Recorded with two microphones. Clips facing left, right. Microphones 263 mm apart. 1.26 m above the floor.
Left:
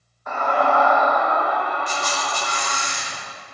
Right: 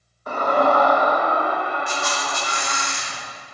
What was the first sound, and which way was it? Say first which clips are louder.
A scream: right 3 dB; 35° right (ahead or behind).